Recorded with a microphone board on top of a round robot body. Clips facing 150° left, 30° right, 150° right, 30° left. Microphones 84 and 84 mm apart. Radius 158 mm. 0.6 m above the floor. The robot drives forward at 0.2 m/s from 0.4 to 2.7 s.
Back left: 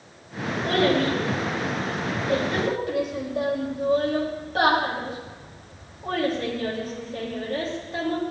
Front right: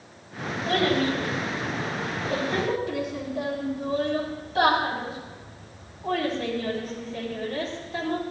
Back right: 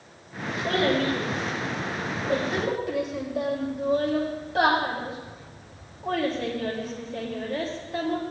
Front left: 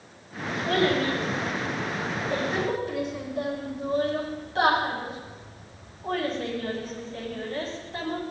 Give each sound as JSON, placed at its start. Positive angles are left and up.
{"t": 0.7, "sound": "a child speaking", "azimuth_deg": -170, "distance_m": 3.0}